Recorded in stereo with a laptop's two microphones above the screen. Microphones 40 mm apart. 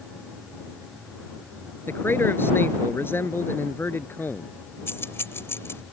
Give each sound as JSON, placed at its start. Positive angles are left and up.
{"t": 1.9, "sound": "a man speaking", "side_deg": 65}
{"t": 4.9, "sound": "keys jangling", "side_deg": 80}